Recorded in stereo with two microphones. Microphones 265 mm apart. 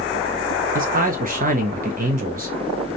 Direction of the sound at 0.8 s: 35° right (ahead or behind).